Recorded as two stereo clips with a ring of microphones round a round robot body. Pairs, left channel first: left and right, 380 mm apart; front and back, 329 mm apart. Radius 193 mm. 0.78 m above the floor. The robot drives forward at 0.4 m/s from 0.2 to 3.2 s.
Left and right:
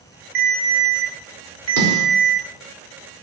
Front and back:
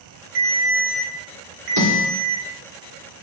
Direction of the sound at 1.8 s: 145° right.